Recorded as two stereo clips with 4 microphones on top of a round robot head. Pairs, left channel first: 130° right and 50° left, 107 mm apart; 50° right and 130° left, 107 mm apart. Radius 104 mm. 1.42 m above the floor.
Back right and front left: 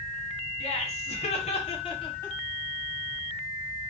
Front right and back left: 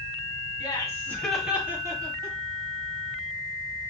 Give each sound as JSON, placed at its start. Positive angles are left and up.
{"t": 0.6, "sound": "laughter", "azimuth_deg": -105, "distance_m": 1.6}